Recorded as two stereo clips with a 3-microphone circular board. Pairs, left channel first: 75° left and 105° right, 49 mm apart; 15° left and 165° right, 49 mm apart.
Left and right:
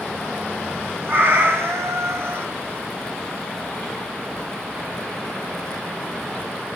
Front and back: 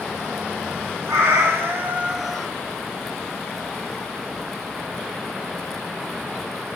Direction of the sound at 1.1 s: 145° right.